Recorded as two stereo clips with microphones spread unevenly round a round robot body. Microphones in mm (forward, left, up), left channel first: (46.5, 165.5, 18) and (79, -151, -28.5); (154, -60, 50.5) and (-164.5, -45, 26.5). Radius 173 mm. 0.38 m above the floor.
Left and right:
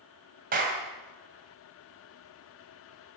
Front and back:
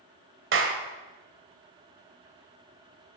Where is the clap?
140° right, 2 m.